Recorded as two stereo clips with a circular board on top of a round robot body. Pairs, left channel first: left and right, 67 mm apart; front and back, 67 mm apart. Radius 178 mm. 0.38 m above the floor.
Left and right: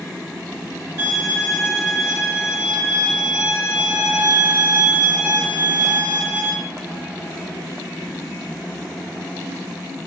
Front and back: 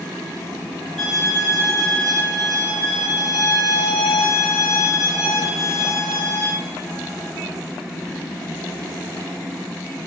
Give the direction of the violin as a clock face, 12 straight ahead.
3 o'clock.